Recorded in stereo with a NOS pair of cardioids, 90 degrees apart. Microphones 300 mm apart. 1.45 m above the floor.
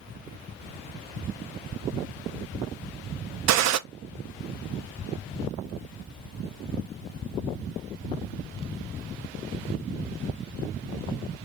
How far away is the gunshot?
About 0.6 m.